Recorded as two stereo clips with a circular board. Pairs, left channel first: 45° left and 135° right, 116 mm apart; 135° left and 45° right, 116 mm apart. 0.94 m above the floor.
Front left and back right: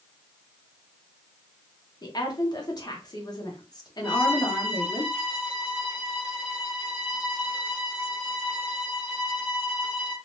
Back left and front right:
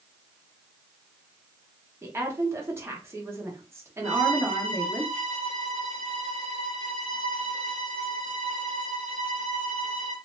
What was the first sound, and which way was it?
A woman speaking, 10° left.